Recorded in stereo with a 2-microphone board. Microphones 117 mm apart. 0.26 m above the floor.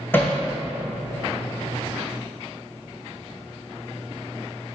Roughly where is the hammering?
Centre.